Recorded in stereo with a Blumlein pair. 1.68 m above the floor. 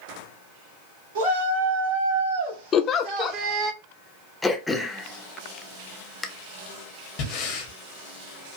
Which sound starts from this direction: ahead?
Throat clearing, at 4.4 s.